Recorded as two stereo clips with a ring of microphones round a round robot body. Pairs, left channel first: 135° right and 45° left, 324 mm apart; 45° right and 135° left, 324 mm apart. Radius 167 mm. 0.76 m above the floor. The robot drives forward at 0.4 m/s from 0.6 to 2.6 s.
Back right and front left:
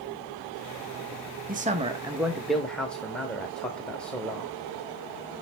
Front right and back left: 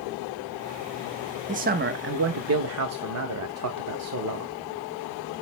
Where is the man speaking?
85° left, 0.7 m; by 4.5 s 140° left, 0.8 m.